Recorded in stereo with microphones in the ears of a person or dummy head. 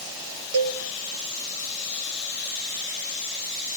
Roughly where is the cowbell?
Right.